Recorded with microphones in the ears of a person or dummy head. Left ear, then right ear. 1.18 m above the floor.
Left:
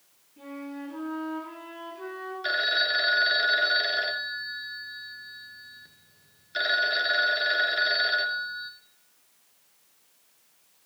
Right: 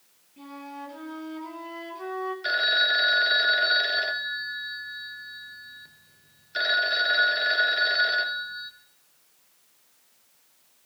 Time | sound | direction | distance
0.4 | a flute | 35° right (ahead or behind) | 8 m
2.4 | a phone ringing | 10° right (ahead or behind) | 0.8 m